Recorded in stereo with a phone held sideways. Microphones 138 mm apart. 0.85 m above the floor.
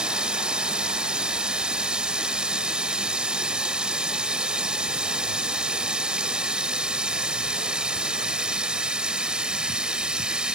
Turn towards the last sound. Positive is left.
turn(degrees=-5)  # may be behind; listen again after turning